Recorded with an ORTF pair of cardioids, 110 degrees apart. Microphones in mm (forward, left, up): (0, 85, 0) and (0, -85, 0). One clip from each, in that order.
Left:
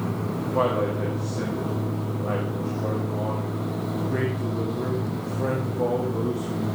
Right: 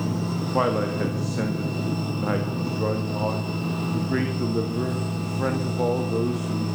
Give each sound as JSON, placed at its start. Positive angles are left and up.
{"t": 0.5, "sound": "a man speaking", "azimuth_deg": -45, "distance_m": 1.8}